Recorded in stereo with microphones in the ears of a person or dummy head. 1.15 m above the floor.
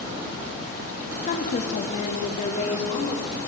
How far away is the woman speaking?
About 1.6 m.